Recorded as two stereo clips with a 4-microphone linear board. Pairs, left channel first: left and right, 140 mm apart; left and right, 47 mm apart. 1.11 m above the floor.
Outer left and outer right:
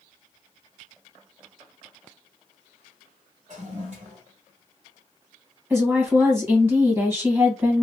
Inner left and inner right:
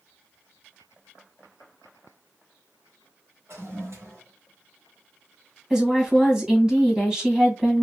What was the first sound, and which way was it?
A toilet flushing, 55° right (ahead or behind).